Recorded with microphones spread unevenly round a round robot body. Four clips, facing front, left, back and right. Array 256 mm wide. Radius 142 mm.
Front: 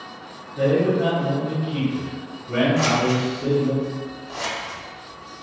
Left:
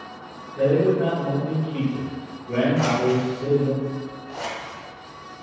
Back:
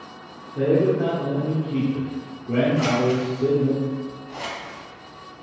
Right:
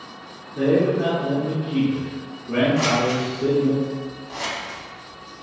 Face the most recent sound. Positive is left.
turn(degrees=-10)